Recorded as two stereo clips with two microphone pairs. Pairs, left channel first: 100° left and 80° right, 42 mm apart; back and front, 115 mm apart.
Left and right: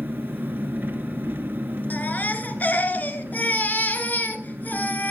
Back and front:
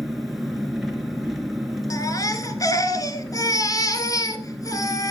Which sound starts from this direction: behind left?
A baby crying, at 1.9 s.